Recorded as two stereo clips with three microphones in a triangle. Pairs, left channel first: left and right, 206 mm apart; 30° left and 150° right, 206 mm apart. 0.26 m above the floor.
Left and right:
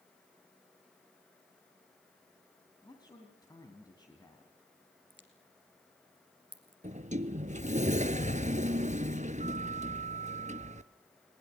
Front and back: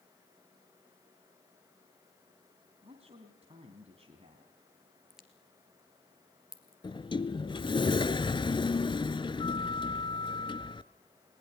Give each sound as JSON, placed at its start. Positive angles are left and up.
{"t": 2.8, "sound": "a man speaking", "azimuth_deg": 155, "distance_m": 2.5}
{"t": 5.1, "sound": "a crack", "azimuth_deg": -65, "distance_m": 2.5}
{"t": 6.8, "sound": "a sliding door", "azimuth_deg": -40, "distance_m": 0.8}